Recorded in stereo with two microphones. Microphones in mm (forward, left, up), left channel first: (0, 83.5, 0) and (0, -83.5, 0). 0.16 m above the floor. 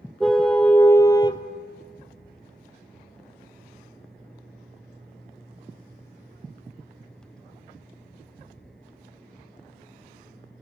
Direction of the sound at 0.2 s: Centre (ahead or behind).